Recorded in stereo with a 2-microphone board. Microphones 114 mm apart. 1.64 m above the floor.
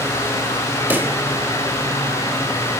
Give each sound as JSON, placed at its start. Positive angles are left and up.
{"t": 0.9, "sound": "a pop", "side_deg": -15, "distance_m": 1.6}